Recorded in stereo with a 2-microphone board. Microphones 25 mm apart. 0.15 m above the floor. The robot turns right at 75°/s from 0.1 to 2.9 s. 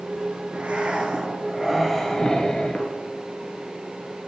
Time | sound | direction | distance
0.5 | breathing | 95° right | 1.3 m